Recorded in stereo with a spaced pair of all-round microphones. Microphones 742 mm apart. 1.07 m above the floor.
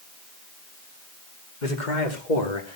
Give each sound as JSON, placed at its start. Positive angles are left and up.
{"t": 1.6, "sound": "a man speaking", "side_deg": 80, "distance_m": 2.5}